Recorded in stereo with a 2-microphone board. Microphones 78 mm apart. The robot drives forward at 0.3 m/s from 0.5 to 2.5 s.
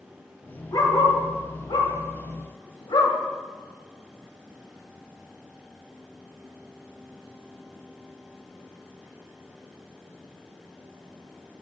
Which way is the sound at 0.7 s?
65° left (ahead or behind).